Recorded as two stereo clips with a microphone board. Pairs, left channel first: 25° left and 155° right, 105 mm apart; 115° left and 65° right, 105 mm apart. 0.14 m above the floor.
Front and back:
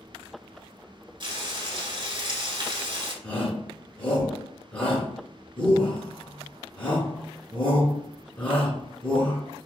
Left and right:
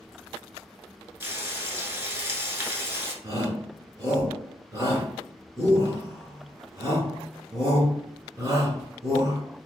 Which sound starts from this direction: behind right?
Frying, at 1.2 s.